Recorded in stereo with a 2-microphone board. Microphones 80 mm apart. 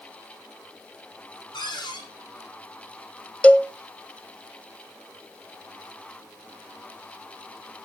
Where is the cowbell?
20° left (ahead or behind), 0.6 m.